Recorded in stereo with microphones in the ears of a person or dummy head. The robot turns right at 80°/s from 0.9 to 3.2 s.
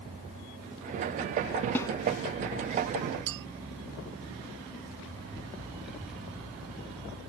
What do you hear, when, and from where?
1.8 s a snare drum: 10° left (ahead or behind); by 1.9 s 25° left (ahead or behind)
3.3 s a clink: 70° right (ahead or behind)
5.8 s a child speaking: centre (ahead or behind)